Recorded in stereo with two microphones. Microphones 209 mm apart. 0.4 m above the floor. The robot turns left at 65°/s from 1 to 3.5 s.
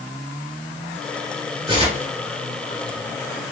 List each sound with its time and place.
1.7 s tearing paper: 25° right (ahead or behind), 2.5 m; by 2.1 s 50° right (ahead or behind), 2.5 m